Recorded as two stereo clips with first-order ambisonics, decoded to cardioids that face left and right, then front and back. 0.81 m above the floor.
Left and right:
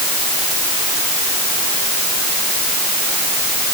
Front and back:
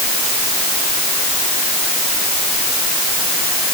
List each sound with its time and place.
Only background noise.